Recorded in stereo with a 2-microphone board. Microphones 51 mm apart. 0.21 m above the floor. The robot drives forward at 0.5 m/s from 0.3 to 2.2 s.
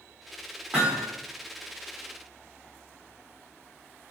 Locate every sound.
0.7 s hammering: 15° right (ahead or behind), 7 m